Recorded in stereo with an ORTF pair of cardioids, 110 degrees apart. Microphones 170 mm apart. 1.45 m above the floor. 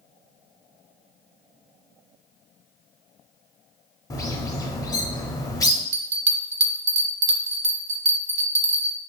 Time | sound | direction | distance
4.1 | a bird | 20° left | 0.7 m
5.9 | a bell | 45° right | 0.5 m